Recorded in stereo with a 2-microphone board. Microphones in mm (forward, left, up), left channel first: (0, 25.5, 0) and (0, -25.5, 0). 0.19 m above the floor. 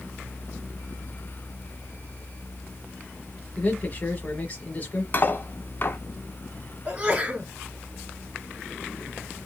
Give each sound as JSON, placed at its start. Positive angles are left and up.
{"t": 3.6, "sound": "a man speaking", "side_deg": 30, "distance_m": 1.2}
{"t": 5.1, "sound": "cutlery clinking", "side_deg": 40, "distance_m": 0.9}
{"t": 6.8, "sound": "a sneeze", "side_deg": -25, "distance_m": 2.0}